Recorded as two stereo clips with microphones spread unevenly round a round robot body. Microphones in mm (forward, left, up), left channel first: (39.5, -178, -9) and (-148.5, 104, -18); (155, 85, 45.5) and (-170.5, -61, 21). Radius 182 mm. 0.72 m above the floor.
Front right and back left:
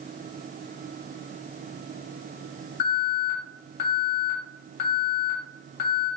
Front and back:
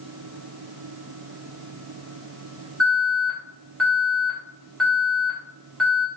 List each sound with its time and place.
2.8 s an alarm: 65° right, 3 m